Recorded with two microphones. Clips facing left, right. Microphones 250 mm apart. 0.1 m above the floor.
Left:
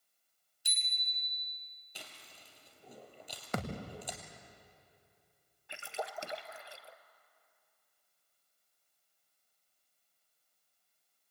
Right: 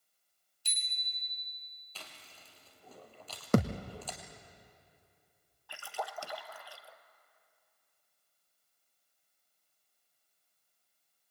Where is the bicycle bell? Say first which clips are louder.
Left 2 dB; 10° left (ahead or behind), 2.5 m.